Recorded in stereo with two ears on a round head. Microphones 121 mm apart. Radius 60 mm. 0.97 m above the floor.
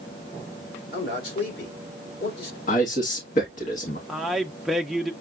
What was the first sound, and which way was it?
A man speaking, 80° left.